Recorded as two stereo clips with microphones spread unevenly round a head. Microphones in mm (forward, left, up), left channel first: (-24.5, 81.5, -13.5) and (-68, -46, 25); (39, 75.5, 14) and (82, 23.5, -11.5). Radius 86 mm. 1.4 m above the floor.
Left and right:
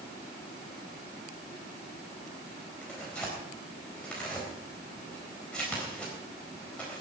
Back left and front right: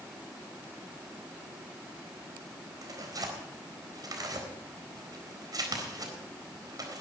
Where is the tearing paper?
15° right, 4 m.